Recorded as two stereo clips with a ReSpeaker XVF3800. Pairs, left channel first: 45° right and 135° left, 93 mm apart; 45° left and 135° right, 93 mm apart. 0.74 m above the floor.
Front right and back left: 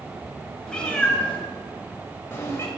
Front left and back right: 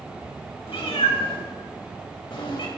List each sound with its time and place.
0.7 s a cat meowing: 35° left, 2.5 m; by 2.7 s 15° left, 1.9 m